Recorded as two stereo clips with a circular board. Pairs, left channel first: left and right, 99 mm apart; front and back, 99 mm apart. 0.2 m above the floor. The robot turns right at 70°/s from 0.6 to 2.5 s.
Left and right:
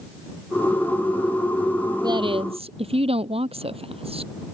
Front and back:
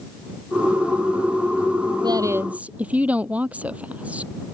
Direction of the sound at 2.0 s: 135° right.